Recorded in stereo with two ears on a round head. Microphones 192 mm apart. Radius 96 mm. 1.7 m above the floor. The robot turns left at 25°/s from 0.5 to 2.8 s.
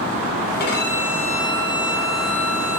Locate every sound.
0.6 s a violin: 130° left, 9 m; by 2.8 s 75° left, 9 m